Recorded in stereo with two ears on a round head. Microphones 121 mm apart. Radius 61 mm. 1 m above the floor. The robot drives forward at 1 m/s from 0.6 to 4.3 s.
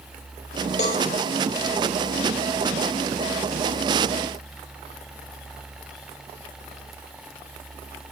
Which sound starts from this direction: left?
A cowbell, at 0.8 s.